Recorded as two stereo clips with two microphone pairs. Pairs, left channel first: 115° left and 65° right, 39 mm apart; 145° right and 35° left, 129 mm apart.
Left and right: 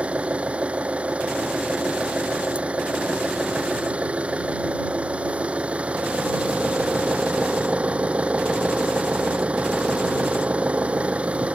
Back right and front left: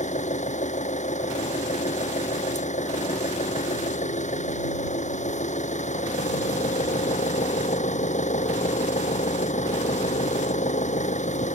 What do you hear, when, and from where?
0.0 s an engine running: 125° right